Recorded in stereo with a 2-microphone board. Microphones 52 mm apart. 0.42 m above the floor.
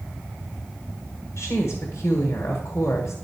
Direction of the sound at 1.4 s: 55° left (ahead or behind).